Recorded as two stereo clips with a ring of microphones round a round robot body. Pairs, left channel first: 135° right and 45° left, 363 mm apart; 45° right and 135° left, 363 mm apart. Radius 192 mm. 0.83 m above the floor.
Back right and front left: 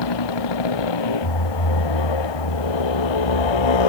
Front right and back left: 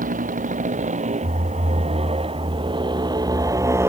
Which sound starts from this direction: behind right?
A motorcycle, at 0.0 s.